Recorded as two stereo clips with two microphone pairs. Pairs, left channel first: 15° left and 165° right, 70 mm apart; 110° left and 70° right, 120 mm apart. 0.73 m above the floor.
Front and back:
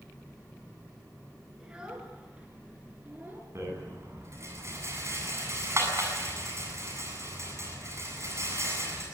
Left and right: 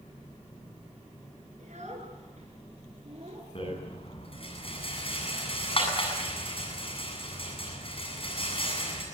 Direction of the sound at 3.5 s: 150° left.